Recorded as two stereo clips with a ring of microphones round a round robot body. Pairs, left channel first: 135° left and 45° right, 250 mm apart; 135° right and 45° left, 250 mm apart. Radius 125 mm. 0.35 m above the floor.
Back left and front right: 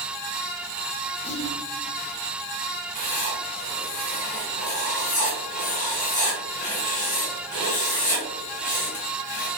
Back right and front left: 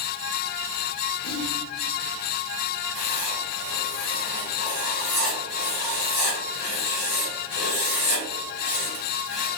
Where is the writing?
165° right, 2.0 m.